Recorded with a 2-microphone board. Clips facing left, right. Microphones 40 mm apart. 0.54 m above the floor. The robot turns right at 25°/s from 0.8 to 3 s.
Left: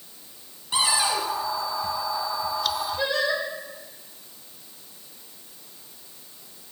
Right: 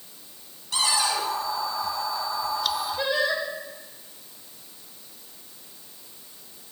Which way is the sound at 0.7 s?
25° left (ahead or behind).